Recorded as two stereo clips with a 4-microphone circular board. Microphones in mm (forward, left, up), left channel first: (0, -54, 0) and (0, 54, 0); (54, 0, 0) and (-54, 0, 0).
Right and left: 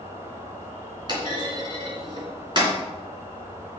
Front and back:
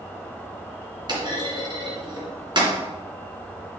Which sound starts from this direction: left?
An insect, at 0.0 s.